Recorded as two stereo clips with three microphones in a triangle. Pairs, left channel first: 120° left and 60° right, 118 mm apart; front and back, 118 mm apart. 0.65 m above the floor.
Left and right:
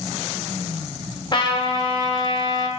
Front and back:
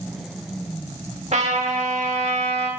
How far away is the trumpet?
About 1.5 m.